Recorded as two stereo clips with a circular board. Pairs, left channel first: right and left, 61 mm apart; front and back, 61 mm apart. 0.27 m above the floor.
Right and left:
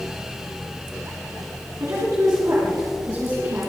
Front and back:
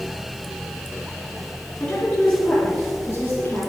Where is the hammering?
I don't hear hammering.